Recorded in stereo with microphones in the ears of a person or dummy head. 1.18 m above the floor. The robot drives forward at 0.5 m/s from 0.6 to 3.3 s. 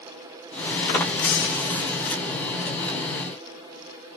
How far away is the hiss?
About 1.1 m.